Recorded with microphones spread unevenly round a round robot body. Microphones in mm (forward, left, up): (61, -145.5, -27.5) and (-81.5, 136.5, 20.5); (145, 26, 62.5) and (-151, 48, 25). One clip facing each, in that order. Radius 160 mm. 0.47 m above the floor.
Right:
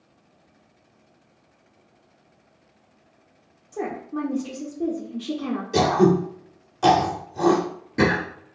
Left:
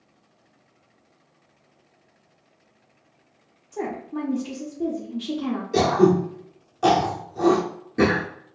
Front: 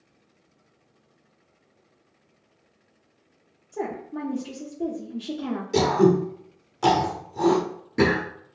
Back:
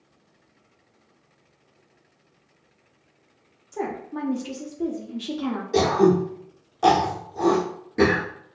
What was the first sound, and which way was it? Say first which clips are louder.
A woman speaking: even, back 1 dB; 150° right.